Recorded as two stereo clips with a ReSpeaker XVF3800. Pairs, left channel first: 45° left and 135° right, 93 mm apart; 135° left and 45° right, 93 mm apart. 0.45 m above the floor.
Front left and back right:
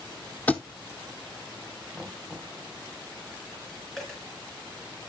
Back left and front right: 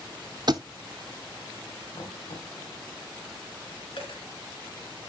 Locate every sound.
0.5 s a thud: 25° right, 0.7 m
1.9 s knocking: 125° left, 2 m
4.0 s a dropped coin: 130° left, 3.5 m